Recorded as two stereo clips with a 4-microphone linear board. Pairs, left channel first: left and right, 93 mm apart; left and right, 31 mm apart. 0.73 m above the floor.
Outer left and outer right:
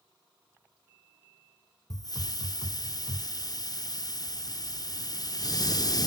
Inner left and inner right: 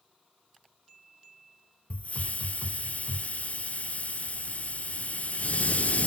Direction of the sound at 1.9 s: 45° left (ahead or behind).